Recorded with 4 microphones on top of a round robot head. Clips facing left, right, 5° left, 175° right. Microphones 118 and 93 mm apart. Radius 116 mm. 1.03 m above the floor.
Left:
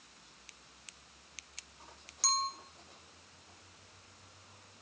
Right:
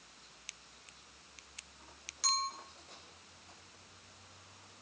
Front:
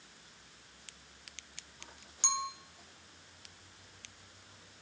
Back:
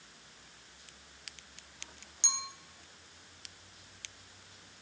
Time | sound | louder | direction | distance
2.2 | a clink | left 2 dB, front 7 dB | 40° left | 2.5 m